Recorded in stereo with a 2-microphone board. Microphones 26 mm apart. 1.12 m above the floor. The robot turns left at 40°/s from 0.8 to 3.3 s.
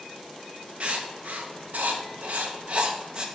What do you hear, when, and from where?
0.8 s writing: 50° right (ahead or behind), 0.7 m; by 3.3 s 30° right (ahead or behind), 0.7 m